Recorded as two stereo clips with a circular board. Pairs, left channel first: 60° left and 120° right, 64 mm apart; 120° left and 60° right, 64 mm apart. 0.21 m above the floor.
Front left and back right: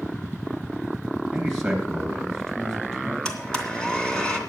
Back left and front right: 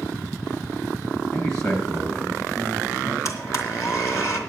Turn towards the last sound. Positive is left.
turn(degrees=140)